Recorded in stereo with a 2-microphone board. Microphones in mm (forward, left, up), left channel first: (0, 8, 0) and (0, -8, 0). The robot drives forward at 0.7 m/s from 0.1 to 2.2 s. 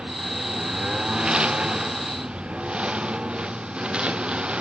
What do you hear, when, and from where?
0.0 s a lawn mower: 80° right; by 4.6 s 90° right